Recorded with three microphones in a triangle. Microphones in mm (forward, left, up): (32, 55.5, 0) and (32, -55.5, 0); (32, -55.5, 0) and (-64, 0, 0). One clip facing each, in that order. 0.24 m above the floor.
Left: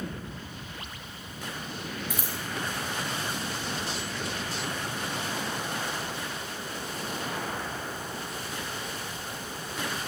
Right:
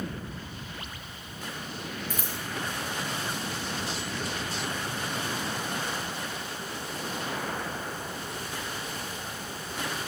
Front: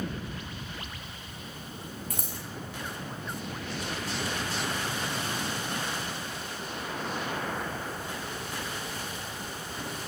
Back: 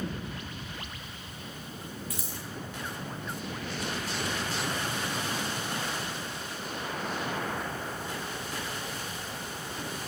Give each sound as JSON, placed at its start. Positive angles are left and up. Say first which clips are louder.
{"t": 2.1, "sound": "scissors", "louder": "left 1 dB, front 1 dB", "azimuth_deg": 10, "distance_m": 5.5}